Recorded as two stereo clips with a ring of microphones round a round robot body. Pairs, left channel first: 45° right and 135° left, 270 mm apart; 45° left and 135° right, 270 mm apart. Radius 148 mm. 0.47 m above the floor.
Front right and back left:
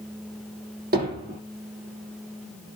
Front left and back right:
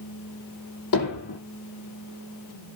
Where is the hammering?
80° left, 7.5 m.